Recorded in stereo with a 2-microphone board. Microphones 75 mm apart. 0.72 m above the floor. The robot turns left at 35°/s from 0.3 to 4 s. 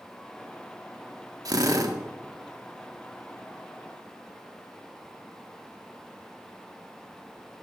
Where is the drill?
55° right (ahead or behind), 1.9 m; by 1.9 s 50° right (ahead or behind), 1.9 m.